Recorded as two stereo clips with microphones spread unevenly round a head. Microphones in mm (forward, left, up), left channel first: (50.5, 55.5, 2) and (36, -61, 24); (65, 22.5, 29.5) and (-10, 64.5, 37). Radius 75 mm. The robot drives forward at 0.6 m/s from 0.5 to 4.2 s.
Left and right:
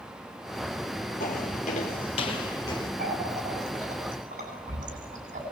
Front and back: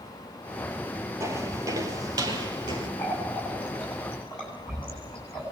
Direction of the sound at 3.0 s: 105° right.